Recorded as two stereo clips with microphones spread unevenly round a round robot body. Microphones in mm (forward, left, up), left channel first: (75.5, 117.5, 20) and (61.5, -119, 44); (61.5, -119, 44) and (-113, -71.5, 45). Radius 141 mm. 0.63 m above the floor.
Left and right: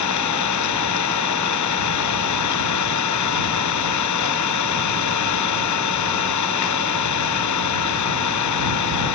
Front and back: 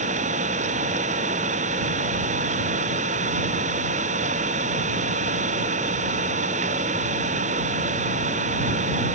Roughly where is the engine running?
Left.